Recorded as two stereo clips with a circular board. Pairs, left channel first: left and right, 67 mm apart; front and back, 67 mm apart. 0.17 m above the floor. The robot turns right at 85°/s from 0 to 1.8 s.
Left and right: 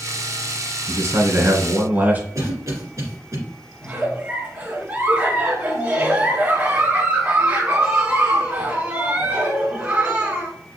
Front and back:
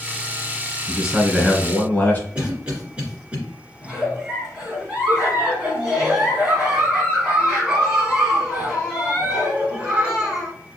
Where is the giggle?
115° right, 1.8 m.